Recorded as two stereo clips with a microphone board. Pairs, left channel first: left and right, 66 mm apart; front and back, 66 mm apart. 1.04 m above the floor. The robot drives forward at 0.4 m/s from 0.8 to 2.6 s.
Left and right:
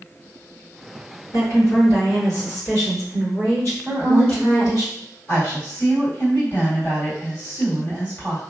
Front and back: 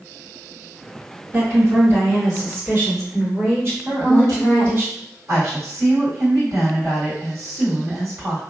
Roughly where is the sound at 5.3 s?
Behind left.